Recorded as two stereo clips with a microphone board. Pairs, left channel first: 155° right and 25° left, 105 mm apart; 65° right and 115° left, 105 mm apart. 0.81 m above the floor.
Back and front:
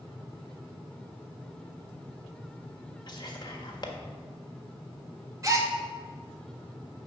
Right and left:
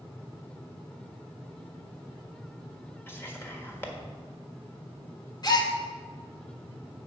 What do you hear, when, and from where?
3.1 s whispering: 125° right, 1.4 m
5.4 s a gasp: 25° right, 1.0 m